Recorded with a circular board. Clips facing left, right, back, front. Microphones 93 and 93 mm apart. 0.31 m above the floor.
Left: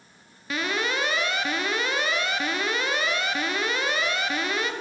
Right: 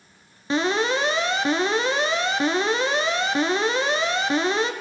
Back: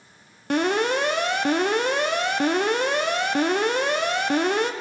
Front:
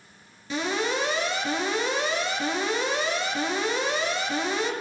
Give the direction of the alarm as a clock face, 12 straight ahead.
5 o'clock.